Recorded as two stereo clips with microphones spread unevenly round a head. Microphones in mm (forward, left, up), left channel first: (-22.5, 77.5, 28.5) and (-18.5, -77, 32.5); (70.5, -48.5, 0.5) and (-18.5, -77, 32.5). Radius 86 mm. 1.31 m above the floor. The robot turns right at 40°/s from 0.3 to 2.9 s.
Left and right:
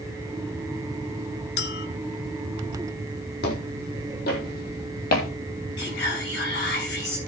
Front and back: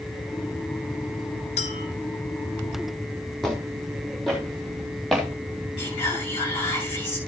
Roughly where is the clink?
Ahead left.